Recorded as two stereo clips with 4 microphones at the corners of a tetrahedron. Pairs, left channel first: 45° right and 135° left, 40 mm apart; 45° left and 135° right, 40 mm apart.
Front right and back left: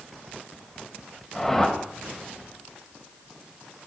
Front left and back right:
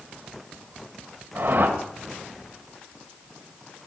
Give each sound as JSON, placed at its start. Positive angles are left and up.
{"t": 1.4, "sound": "a whoosh", "azimuth_deg": -125, "distance_m": 2.0}